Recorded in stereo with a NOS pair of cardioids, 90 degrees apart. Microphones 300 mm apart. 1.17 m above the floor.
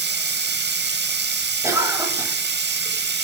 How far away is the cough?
About 7.5 m.